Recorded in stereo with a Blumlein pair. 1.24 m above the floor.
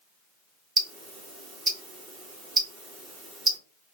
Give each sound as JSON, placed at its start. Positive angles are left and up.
{"t": 0.8, "sound": "ticking", "azimuth_deg": -20, "distance_m": 1.2}